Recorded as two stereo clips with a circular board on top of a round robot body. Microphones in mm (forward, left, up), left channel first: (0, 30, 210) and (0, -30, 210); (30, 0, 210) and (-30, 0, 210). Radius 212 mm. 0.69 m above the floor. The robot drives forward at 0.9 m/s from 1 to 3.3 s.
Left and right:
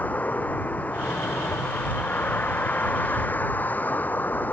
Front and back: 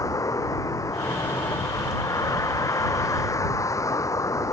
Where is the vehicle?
25° left; by 4.5 s 30° left.